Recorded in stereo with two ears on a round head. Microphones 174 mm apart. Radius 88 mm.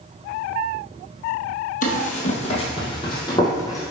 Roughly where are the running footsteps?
Left.